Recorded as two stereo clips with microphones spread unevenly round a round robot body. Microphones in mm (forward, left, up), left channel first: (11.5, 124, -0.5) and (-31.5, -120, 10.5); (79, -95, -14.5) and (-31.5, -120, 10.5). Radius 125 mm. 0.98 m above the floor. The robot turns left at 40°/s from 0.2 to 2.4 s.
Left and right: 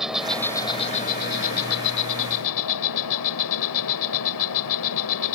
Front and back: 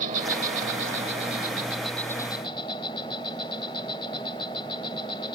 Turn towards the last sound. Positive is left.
turn(degrees=85)